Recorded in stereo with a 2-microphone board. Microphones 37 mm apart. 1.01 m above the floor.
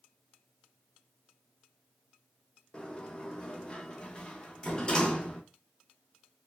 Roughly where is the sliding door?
Left.